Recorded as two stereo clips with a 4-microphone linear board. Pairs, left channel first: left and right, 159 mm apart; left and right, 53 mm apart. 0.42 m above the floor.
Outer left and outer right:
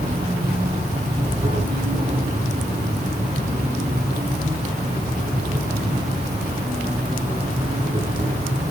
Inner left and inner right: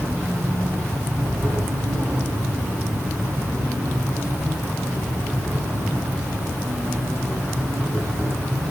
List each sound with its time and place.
0.0 s an insect: 45° right (ahead or behind), 9.5 m